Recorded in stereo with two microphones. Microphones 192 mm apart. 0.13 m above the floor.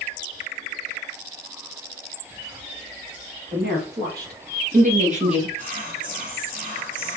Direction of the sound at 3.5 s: 60° right (ahead or behind).